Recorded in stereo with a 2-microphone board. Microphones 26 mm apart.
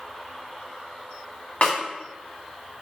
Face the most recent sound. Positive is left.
turn(degrees=50)  # may be behind; listen again after turning